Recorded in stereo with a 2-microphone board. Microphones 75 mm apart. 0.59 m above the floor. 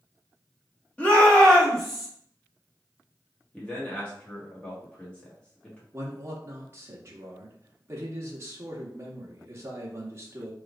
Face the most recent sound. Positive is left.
turn(degrees=-35)  # may be behind; listen again after turning